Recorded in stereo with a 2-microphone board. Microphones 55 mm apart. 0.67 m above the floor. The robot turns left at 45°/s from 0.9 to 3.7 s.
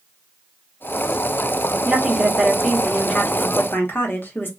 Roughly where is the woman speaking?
Behind right.